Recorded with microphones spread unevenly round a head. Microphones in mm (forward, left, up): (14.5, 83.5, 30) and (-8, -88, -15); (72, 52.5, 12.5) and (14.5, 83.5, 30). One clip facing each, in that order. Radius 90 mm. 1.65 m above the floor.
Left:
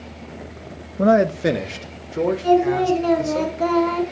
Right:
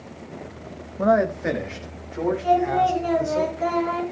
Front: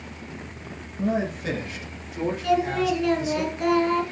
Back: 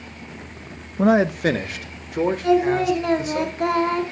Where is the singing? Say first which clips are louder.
Left 4 dB, back 4 dB; 105° left, 4 m.